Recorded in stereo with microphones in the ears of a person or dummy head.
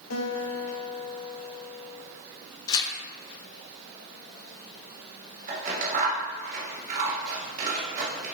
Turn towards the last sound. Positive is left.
turn(degrees=-40)  # may be behind; listen again after turning